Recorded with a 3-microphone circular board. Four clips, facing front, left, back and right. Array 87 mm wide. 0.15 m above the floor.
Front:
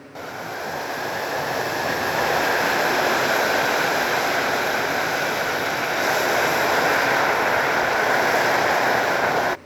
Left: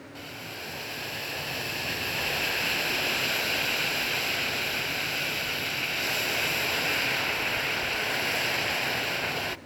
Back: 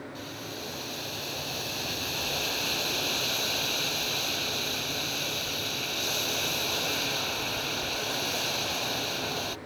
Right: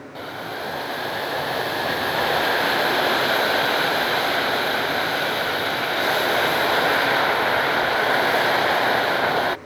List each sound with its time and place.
0.1 s boiling: 40° right